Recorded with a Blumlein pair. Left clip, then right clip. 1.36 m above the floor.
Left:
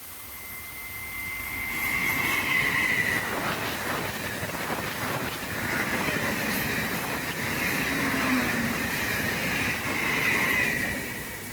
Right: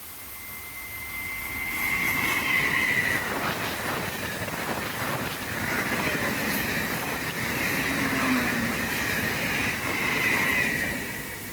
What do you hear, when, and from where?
Only background noise.